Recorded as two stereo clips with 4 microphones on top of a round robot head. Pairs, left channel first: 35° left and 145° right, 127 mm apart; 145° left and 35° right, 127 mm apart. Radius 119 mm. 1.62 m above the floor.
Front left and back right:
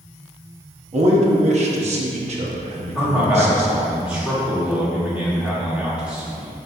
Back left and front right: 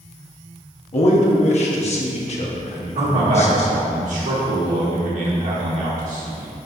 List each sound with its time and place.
0.9 s a man speaking: straight behind, 0.9 m
3.0 s a man speaking: 65° right, 2 m